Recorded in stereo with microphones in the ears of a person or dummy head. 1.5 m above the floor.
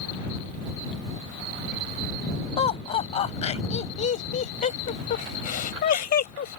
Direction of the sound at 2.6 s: 35° left (ahead or behind).